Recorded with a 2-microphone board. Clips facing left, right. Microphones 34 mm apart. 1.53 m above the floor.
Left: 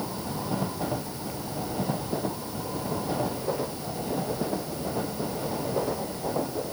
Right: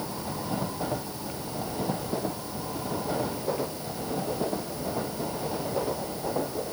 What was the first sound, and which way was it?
Only background noise.